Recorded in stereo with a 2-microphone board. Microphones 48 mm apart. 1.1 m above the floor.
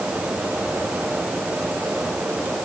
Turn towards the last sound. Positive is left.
No sound to turn to.